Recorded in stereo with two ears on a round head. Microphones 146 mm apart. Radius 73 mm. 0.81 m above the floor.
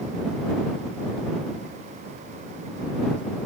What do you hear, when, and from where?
Only background noise.